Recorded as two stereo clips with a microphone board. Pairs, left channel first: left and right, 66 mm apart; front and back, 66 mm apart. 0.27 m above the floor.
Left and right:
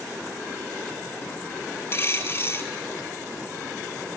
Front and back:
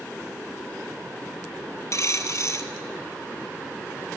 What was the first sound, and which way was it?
A dropped coin, 35° left.